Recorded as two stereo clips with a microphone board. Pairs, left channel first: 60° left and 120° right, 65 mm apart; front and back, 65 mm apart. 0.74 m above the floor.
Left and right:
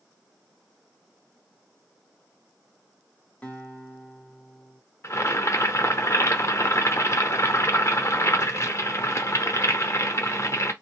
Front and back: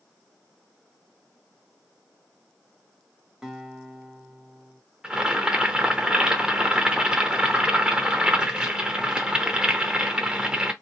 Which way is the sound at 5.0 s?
105° left.